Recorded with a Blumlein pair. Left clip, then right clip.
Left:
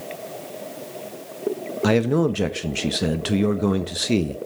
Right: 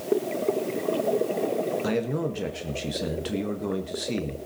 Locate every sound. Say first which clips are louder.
1.8 s a man speaking: left 7 dB; 25° left, 1.5 m